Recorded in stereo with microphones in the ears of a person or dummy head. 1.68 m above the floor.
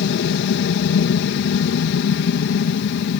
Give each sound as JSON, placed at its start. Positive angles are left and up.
{"t": 0.0, "sound": "an aircraft", "side_deg": 65}